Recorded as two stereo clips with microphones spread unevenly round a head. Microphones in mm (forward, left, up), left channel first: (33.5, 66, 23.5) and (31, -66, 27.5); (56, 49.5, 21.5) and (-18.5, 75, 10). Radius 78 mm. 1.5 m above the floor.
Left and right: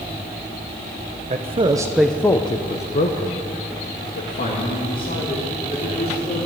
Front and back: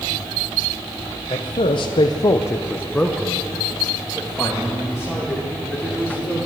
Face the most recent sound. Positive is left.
turn(degrees=80)